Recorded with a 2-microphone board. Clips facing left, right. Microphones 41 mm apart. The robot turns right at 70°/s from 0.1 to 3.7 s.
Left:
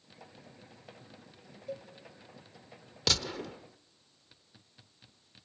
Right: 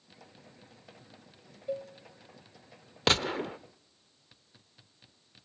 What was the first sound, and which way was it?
A cowbell, 30° right (ahead or behind).